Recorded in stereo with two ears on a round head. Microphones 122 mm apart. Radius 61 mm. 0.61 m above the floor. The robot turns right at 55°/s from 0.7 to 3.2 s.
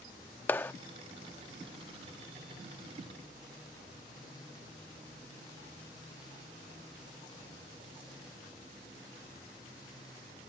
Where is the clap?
15° left (ahead or behind).